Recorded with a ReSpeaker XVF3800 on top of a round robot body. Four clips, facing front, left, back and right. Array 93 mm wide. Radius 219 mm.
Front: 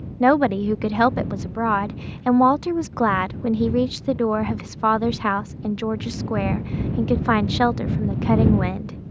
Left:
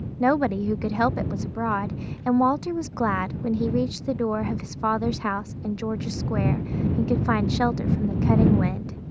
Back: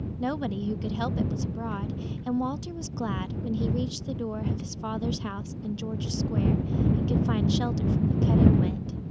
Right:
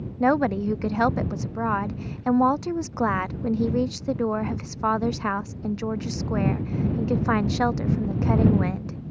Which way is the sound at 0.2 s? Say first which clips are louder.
Even, front 13 dB; 5° right.